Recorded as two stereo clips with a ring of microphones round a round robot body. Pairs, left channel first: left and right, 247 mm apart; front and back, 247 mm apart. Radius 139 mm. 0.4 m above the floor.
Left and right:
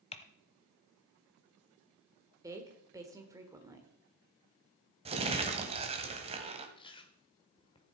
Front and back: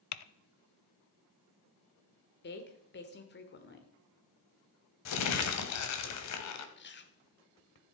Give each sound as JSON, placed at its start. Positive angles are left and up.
{"t": 0.1, "sound": "typing on a keyboard", "azimuth_deg": 20, "distance_m": 0.7}
{"t": 2.4, "sound": "a woman speaking", "azimuth_deg": -15, "distance_m": 1.4}
{"t": 5.0, "sound": "crumpling", "azimuth_deg": -20, "distance_m": 1.5}
{"t": 6.8, "sound": "chewing", "azimuth_deg": 25, "distance_m": 1.3}